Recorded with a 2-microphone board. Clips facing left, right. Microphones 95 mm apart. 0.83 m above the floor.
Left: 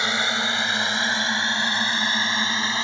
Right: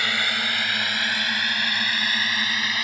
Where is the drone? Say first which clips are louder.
Left 2 dB; 20° left (ahead or behind); by 2.9 s 30° left (ahead or behind).